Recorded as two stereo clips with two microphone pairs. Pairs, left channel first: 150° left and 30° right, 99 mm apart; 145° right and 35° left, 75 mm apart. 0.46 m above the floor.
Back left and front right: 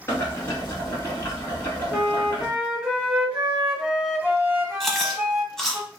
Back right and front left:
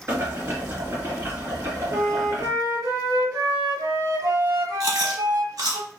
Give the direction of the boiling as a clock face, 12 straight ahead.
9 o'clock.